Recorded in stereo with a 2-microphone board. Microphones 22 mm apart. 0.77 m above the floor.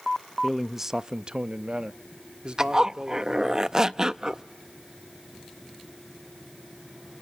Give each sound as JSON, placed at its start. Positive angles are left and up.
{"t": 0.4, "sound": "a man speaking", "side_deg": 5, "distance_m": 0.6}
{"t": 2.6, "sound": "a zipper", "side_deg": -30, "distance_m": 0.5}